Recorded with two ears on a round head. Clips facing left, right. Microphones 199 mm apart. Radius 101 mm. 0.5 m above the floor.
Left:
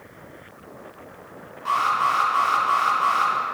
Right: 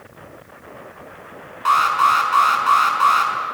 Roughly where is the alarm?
Right.